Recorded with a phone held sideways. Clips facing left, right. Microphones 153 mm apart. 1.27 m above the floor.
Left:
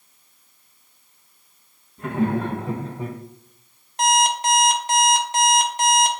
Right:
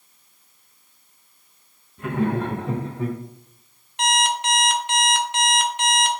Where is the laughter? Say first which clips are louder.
Left 1 dB; 5° left (ahead or behind), 1.4 m; by 3.2 s 10° left (ahead or behind), 0.7 m.